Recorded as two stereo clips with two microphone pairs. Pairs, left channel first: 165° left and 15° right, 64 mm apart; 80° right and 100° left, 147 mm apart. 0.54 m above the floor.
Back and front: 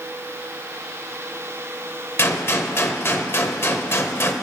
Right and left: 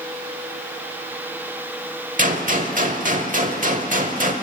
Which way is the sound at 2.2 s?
120° left.